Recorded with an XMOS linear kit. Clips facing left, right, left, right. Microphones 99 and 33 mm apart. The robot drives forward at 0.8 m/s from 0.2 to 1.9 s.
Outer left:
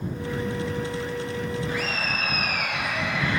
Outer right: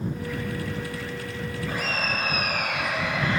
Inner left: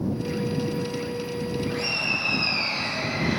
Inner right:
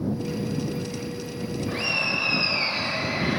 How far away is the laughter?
About 3 m.